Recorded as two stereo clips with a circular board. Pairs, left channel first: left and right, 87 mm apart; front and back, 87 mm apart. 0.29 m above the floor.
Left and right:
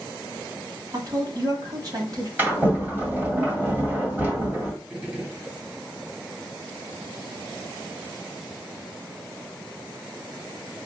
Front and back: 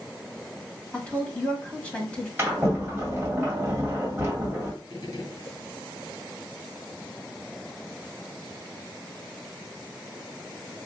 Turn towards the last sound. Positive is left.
turn(degrees=-25)